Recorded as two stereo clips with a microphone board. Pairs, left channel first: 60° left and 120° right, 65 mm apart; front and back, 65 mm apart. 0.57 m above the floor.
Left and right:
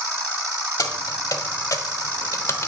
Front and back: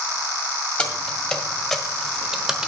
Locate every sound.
0.8 s keys jangling: 70° left, 1.8 m; by 2.7 s 100° left, 1.0 m